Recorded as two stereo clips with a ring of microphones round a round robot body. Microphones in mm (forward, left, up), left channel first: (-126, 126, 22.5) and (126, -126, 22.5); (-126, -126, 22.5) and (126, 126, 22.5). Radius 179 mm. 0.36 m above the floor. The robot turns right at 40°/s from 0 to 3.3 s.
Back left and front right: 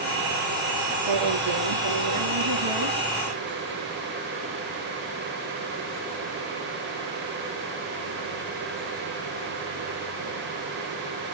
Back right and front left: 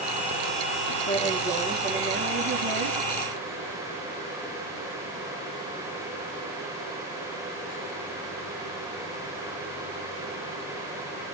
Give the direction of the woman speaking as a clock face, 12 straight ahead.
2 o'clock.